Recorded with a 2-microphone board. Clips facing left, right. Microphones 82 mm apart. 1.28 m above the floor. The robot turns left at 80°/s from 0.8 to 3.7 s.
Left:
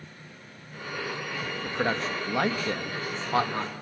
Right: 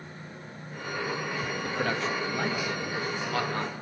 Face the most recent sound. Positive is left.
turn(degrees=5)  # may be behind; listen again after turning